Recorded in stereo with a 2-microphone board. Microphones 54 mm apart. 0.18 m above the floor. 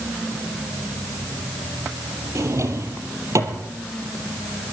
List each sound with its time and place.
2.4 s a drawer: 60° right (ahead or behind), 2.5 m